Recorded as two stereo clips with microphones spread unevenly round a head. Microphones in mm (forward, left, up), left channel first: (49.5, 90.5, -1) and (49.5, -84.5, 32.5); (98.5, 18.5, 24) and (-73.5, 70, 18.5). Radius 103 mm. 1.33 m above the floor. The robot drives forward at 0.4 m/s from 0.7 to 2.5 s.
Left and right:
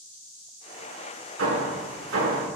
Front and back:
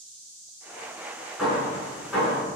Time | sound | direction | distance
1.4 | hammering | 110° right | 8 m